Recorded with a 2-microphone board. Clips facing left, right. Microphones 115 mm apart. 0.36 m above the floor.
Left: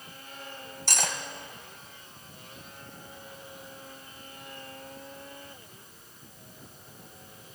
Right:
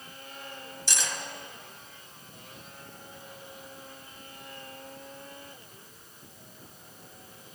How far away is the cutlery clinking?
About 1.1 m.